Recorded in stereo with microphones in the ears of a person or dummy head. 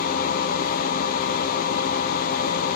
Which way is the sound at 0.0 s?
50° left (ahead or behind).